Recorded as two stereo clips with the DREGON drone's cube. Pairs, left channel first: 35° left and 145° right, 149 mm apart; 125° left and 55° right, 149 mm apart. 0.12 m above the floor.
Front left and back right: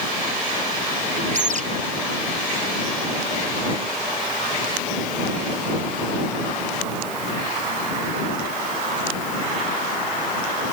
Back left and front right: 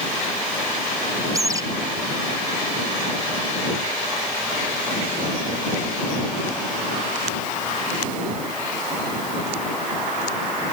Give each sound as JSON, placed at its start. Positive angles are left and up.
{"t": 1.3, "sound": "a bird", "azimuth_deg": -120}